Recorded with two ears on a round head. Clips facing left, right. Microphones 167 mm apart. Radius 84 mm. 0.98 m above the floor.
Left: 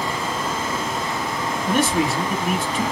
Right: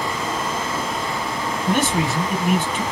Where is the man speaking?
Centre (ahead or behind), 1.4 m.